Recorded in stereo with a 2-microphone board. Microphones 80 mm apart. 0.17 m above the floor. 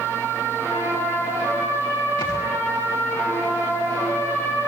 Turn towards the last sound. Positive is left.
turn(degrees=60)  # may be behind; listen again after turning